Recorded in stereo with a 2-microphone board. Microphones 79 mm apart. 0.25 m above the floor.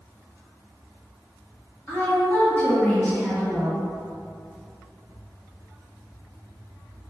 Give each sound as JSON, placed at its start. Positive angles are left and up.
{"t": 1.9, "sound": "a woman speaking", "side_deg": 30, "distance_m": 1.6}